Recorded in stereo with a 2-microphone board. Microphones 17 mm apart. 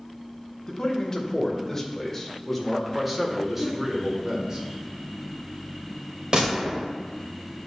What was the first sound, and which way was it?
A man speaking, 35° left (ahead or behind).